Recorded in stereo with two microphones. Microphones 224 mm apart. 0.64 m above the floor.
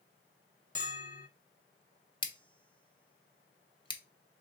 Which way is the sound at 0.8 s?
35° left (ahead or behind).